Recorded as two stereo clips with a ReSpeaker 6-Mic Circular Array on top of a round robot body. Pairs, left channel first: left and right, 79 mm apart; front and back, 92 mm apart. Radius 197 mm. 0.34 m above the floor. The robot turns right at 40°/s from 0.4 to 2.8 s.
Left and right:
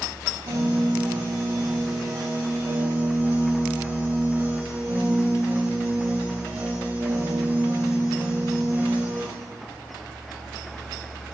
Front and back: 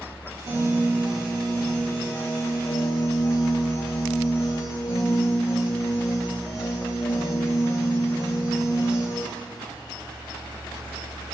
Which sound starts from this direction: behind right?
A piano, at 0.5 s.